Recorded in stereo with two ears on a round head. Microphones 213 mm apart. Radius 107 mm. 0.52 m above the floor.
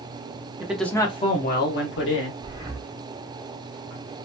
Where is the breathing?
20° right (ahead or behind), 1.1 m.